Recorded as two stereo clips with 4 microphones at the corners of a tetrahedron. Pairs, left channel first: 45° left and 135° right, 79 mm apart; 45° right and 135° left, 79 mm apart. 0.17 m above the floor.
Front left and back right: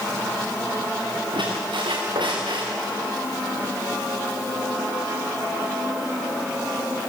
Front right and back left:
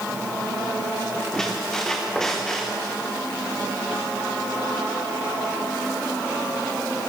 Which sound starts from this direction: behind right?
A squeak, at 1.3 s.